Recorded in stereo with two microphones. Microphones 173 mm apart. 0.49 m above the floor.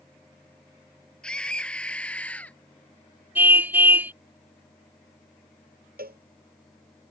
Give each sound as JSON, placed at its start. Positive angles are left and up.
{"t": 1.2, "sound": "a scream", "side_deg": 5}
{"t": 3.4, "sound": "a car horn", "side_deg": -10}
{"t": 6.0, "sound": "a cowbell", "side_deg": -60}